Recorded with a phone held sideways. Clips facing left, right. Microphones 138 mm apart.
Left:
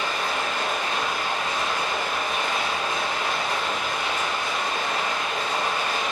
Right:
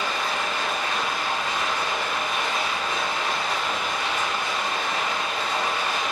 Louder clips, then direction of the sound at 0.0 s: Even; 50° left (ahead or behind).